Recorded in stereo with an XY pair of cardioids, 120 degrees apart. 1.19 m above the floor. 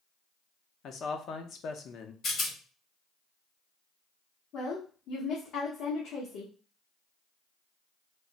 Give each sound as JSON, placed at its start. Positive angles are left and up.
{"t": 0.8, "sound": "a man speaking", "azimuth_deg": 55, "distance_m": 0.7}
{"t": 2.2, "sound": "a rattle", "azimuth_deg": 50, "distance_m": 1.3}
{"t": 4.5, "sound": "a woman speaking", "azimuth_deg": 65, "distance_m": 1.0}